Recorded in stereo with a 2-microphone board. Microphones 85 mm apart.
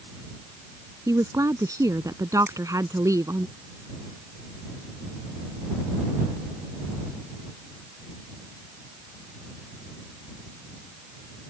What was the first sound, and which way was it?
A woman speaking, 40° right (ahead or behind).